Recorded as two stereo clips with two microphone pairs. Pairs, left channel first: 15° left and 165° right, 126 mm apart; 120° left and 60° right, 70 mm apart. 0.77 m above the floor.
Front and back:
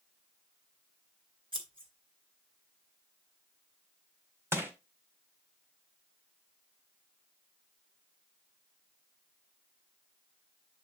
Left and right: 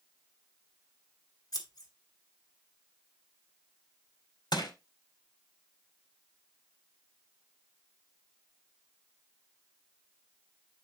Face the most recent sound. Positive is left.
turn(degrees=125)